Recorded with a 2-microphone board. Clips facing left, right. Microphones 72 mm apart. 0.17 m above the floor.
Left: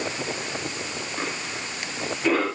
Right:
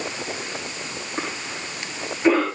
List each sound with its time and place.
1.2 s a cough: 30° right (ahead or behind), 7.5 m